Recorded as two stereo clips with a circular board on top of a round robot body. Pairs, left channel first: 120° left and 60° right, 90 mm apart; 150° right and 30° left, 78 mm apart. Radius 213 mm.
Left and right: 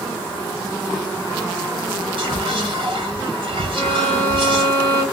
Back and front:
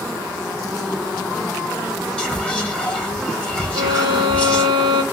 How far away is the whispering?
About 2 m.